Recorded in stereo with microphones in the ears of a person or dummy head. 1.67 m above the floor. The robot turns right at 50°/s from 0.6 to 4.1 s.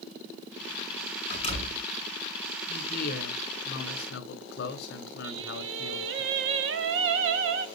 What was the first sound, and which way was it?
A door slam, 40° left (ahead or behind).